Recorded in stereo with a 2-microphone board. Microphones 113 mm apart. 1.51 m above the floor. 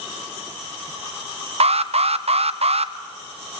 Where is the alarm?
65° right (ahead or behind), 0.5 m.